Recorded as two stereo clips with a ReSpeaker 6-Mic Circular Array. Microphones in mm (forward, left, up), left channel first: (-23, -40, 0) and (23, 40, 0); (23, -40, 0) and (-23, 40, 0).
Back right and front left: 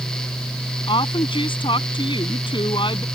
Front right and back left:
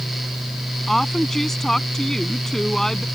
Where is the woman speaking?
145° right.